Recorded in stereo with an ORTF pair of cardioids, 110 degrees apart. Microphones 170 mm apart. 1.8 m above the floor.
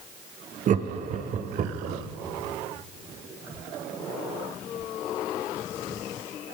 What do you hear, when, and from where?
0.7 s laughter: 50° right, 0.7 m